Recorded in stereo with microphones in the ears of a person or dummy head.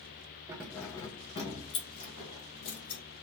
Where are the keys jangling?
10° right (ahead or behind), 0.6 m; by 3.0 s 50° left (ahead or behind), 1.9 m.